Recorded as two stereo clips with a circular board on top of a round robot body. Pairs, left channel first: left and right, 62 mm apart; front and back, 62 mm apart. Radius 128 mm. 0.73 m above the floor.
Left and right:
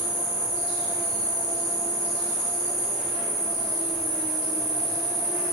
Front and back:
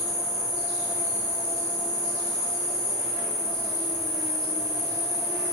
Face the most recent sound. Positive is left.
turn(degrees=5)